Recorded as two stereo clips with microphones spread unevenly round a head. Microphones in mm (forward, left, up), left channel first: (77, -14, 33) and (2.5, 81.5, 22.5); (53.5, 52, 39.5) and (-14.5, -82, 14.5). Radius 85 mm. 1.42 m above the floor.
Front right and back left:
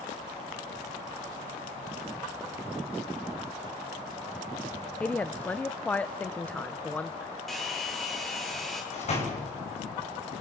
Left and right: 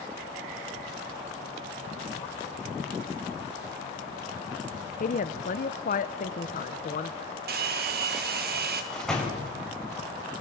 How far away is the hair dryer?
About 2.5 m.